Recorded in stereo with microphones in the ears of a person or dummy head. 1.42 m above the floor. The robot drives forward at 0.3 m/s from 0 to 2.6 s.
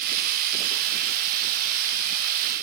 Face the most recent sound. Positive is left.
No sound to turn to.